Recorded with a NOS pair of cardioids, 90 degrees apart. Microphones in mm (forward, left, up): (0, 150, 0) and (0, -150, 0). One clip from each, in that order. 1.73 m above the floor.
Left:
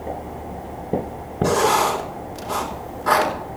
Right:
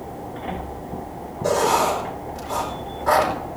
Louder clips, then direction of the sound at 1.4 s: Left 1 dB; 50° left.